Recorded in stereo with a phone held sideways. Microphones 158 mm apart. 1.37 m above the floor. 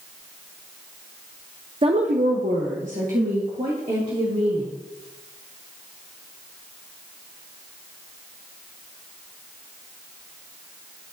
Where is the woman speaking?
35° right (ahead or behind), 0.5 m; by 4.7 s 50° right (ahead or behind), 3 m.